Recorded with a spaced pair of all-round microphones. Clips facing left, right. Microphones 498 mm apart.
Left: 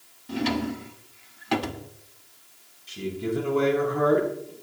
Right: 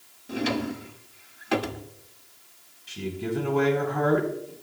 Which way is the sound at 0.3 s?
20° left (ahead or behind).